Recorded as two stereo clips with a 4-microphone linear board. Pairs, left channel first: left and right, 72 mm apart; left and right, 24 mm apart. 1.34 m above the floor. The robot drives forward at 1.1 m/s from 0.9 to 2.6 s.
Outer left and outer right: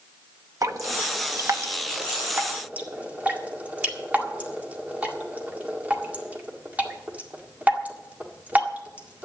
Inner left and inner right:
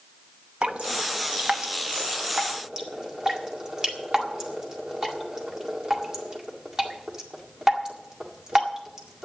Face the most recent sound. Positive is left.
turn(degrees=-20)  # may be behind; listen again after turning